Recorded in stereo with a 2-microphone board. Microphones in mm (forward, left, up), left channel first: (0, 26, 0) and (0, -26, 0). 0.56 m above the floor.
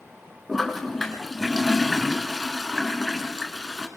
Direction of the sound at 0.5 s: 5° left (ahead or behind).